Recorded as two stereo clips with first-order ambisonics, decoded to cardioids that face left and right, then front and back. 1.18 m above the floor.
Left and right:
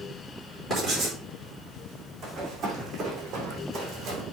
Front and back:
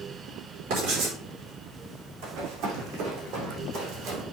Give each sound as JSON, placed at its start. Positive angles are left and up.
{"t": 0.7, "sound": "writing", "azimuth_deg": -170, "distance_m": 4.5}
{"t": 2.2, "sound": "running footsteps", "azimuth_deg": -165, "distance_m": 4.0}